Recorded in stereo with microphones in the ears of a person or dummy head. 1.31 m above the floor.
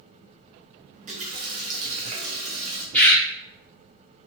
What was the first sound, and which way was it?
A running tap, 45° right (ahead or behind).